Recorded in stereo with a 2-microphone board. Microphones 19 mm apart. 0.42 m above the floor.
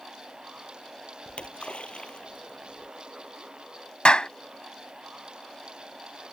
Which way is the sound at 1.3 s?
65° left (ahead or behind).